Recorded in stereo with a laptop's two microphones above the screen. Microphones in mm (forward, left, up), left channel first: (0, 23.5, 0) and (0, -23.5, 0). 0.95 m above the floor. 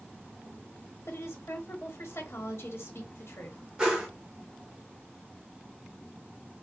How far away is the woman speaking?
About 1.2 m.